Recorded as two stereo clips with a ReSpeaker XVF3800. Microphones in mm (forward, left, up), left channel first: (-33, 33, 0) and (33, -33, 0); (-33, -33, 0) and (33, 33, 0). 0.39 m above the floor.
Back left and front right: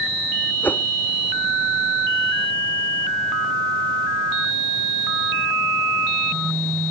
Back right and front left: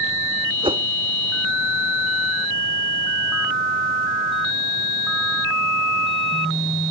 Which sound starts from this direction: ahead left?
A whoosh, at 0.6 s.